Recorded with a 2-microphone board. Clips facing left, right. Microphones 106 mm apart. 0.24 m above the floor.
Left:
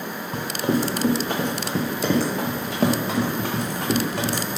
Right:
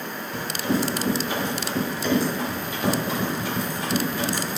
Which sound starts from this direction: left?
Running footsteps, at 0.3 s.